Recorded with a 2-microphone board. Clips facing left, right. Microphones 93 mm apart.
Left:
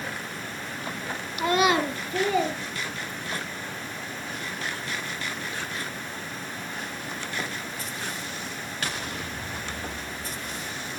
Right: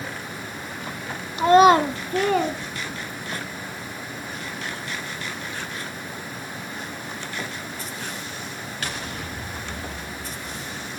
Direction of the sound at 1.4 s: 30° right (ahead or behind).